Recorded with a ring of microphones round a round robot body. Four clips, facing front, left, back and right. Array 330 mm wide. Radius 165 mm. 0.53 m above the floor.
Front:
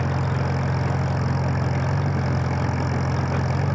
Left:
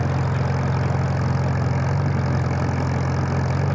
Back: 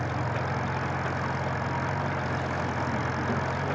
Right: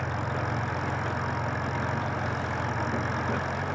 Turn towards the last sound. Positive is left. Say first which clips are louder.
# left 6 dB, front 4 dB
turn(degrees=55)